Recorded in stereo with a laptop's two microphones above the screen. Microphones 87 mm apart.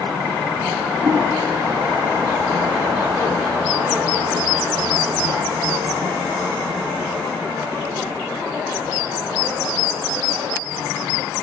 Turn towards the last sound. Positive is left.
turn(degrees=-50)  # may be behind; listen again after turning